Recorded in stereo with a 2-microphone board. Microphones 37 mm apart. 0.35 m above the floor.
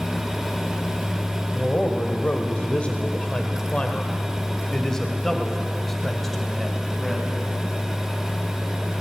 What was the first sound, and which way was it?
A man speaking, 35° left (ahead or behind).